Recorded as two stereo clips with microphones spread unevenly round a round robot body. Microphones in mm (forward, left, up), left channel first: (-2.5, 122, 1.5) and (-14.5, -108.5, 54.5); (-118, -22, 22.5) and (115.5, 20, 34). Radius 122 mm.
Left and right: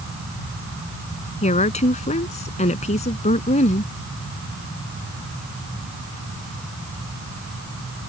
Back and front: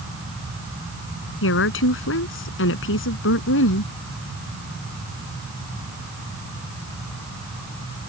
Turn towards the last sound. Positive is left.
turn(degrees=150)